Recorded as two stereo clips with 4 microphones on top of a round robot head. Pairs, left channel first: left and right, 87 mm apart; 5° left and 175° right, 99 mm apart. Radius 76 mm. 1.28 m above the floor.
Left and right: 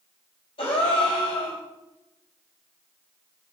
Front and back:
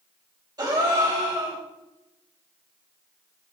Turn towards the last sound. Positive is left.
turn(degrees=135)